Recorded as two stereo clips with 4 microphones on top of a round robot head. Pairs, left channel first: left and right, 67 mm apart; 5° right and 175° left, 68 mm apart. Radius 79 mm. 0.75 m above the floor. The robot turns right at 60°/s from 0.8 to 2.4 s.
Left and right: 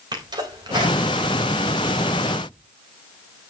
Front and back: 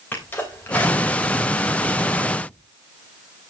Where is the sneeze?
75° right, 3.5 m; by 2.5 s 25° left, 3.5 m.